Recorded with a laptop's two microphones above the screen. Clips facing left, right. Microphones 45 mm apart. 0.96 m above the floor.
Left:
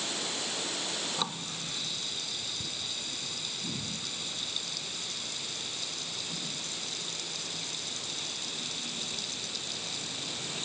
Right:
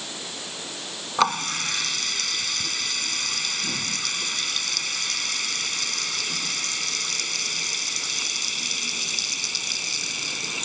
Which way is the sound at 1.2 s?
80° right.